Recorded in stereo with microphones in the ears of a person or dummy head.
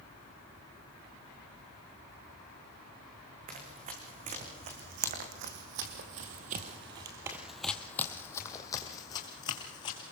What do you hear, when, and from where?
3.5 s running footsteps: 40° right (ahead or behind), 5 m; by 10.1 s 25° left (ahead or behind), 4 m